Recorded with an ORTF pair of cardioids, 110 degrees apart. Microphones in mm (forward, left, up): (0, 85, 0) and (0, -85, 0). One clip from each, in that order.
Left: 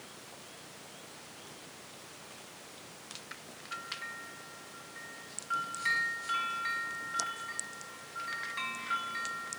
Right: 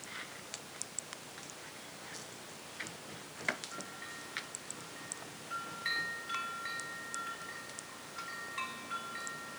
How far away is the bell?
About 4 m.